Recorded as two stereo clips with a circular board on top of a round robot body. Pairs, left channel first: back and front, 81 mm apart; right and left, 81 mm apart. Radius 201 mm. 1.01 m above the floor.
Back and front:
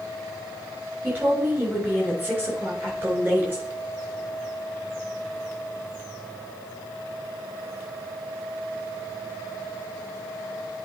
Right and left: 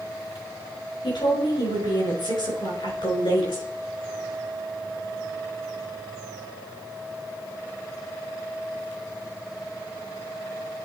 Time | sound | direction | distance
1.0 | a woman speaking | 70° right | 5 m